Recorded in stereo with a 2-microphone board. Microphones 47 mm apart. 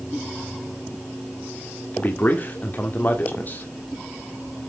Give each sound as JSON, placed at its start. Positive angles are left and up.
{"t": 1.9, "sound": "a man speaking", "side_deg": 40, "distance_m": 1.6}